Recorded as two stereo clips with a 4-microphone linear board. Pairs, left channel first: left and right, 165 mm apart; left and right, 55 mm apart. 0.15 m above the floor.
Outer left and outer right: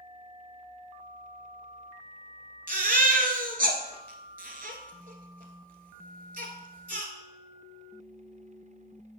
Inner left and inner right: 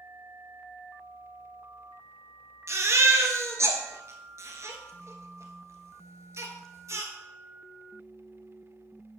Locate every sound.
2.7 s a baby crying: 60° right (ahead or behind), 1.2 m